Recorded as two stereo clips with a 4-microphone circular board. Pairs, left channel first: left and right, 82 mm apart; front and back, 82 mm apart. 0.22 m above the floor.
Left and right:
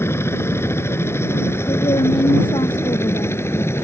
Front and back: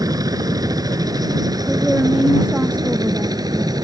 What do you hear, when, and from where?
0.0 s a helicopter: 145° left
1.7 s a woman speaking: 105° left